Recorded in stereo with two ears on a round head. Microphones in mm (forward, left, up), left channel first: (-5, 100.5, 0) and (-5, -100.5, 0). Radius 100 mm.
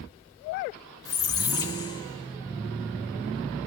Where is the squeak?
20° left (ahead or behind), 0.6 m.